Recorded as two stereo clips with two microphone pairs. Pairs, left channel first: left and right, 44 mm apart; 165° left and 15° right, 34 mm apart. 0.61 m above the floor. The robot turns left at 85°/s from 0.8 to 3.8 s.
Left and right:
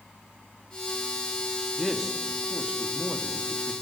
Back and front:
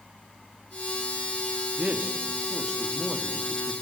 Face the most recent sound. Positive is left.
turn(degrees=-165)